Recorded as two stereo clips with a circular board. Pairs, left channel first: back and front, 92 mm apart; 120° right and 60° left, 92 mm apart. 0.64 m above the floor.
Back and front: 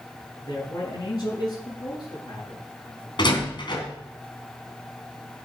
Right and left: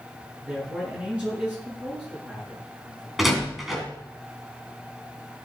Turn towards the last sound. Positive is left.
turn(degrees=150)